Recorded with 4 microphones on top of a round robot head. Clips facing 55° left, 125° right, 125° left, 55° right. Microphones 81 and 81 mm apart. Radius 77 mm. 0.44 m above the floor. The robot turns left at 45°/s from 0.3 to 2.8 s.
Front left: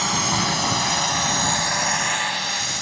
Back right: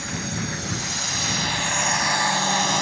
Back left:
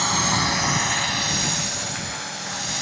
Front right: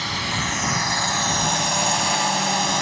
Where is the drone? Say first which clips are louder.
Front left 7 dB, back left 4 dB; 65° left; by 2.8 s 90° right.